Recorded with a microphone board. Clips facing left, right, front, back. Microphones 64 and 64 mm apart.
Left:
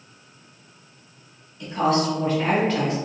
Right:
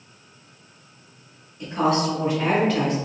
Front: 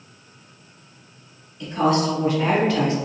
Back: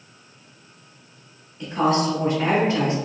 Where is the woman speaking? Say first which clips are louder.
Even, front 1 dB; 130° right, 1.8 m; by 3.0 s 165° left, 1.4 m.